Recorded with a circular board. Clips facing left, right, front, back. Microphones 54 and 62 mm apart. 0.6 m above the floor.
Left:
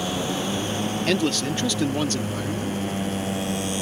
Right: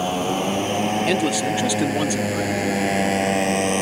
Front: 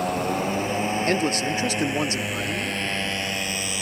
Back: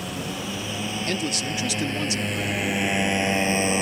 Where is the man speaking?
15° right.